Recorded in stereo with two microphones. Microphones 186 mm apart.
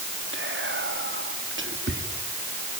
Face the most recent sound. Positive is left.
turn(degrees=-80)